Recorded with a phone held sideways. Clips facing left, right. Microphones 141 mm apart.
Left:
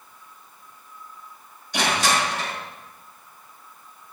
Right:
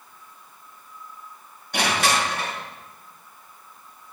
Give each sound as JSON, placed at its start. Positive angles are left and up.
{"t": 1.7, "sound": "crushing", "side_deg": -55, "distance_m": 5.5}